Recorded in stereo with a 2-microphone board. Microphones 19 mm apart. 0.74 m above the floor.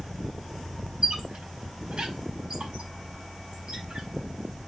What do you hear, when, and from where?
1.0 s a squeak: 65° right (ahead or behind), 4 m